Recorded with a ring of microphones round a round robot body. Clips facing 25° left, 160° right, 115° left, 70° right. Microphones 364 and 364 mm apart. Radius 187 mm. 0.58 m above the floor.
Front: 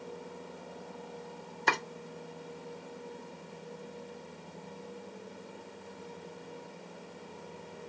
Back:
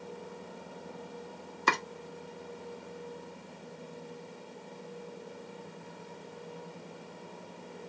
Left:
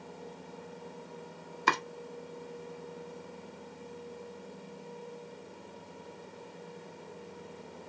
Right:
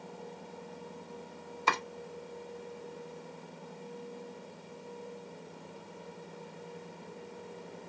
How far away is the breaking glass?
I don't hear breaking glass.